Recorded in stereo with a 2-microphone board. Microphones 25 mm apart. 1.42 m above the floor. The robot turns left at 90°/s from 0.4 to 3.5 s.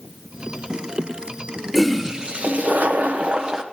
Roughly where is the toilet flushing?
Ahead.